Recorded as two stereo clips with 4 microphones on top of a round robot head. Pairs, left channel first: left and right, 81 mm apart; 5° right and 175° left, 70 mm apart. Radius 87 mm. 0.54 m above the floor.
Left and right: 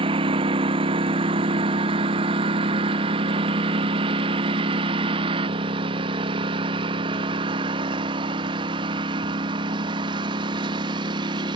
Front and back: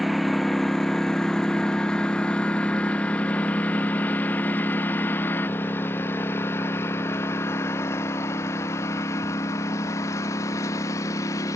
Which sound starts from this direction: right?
A lawn mower, at 0.0 s.